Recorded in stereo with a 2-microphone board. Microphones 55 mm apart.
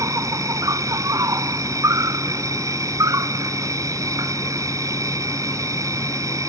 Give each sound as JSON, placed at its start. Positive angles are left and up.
{"t": 0.0, "sound": "an insect", "side_deg": -90}